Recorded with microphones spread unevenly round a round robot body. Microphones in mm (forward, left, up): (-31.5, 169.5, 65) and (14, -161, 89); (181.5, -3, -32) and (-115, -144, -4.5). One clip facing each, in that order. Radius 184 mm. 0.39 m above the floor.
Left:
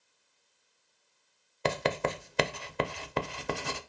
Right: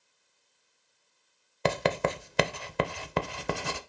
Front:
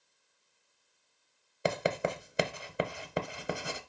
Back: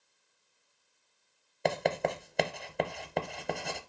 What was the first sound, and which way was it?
Writing, 60° right.